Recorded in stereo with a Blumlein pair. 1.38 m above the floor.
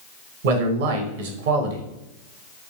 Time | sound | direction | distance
0.4 | a man speaking | 55° right | 0.7 m